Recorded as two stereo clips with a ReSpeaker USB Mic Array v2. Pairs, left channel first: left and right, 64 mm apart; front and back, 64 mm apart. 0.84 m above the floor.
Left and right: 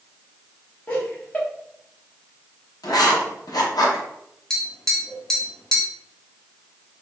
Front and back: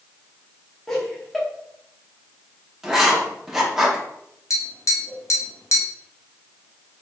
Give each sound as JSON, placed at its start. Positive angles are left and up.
{"t": 0.9, "sound": "laughter", "azimuth_deg": 80, "distance_m": 1.0}
{"t": 2.8, "sound": "writing", "azimuth_deg": 95, "distance_m": 0.8}
{"t": 4.5, "sound": "tapping", "azimuth_deg": 10, "distance_m": 0.7}